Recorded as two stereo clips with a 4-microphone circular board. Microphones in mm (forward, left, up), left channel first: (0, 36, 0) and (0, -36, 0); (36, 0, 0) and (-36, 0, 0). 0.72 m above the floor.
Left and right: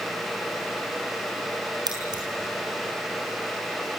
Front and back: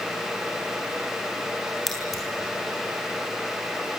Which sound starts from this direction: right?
Scissors, at 1.9 s.